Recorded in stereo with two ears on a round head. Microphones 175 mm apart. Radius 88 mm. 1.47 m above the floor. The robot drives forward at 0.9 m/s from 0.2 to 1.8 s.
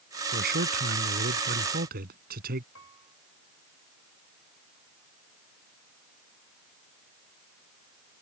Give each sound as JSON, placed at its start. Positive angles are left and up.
{"t": 0.3, "sound": "a man speaking", "side_deg": -55}
{"t": 2.8, "sound": "a piano", "side_deg": 75}